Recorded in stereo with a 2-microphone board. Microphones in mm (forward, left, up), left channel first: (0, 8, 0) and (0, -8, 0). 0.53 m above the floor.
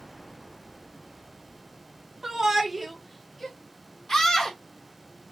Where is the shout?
35° right (ahead or behind), 0.9 m; by 3.6 s 20° left (ahead or behind), 0.8 m.